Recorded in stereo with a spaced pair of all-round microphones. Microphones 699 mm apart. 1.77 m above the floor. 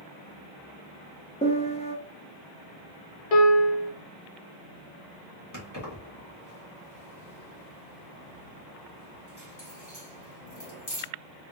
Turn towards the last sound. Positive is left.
turn(degrees=25)  # may be behind; listen again after turning